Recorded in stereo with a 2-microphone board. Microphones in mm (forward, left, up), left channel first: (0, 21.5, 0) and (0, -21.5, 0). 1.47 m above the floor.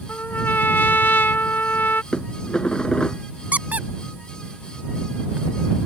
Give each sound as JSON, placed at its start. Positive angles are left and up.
{"t": 0.1, "sound": "a trumpet", "side_deg": 50}
{"t": 2.1, "sound": "dishes clattering", "side_deg": 20}
{"t": 3.5, "sound": "a squeak", "side_deg": -35}